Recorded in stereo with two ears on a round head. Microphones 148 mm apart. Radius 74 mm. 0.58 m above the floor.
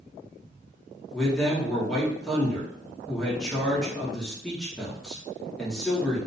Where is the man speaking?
5° left (ahead or behind), 0.8 m.